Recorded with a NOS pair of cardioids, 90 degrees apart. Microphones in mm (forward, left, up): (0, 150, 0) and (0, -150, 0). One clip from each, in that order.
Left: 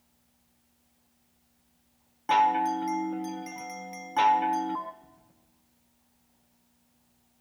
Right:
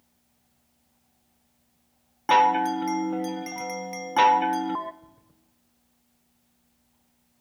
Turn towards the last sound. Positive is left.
turn(degrees=-45)